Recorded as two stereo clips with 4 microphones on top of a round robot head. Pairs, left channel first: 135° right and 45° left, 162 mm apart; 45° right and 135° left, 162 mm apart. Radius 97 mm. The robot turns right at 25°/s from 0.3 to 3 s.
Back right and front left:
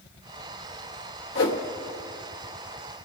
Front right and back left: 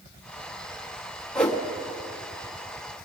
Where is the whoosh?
130° right, 1.1 m; by 1.6 s 125° right, 1.1 m.